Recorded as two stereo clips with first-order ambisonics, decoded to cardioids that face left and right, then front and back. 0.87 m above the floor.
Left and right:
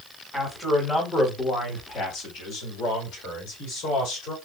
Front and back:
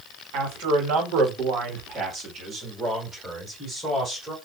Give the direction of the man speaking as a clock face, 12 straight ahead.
6 o'clock.